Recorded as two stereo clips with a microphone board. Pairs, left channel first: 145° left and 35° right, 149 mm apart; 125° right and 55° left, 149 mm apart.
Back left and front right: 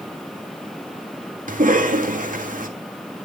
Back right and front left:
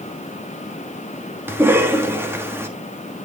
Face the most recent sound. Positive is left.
turn(degrees=-20)